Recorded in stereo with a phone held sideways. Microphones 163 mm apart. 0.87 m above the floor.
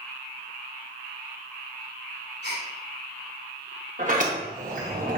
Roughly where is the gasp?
Left.